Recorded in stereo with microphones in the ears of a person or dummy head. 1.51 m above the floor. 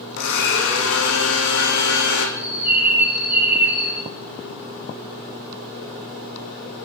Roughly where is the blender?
Left.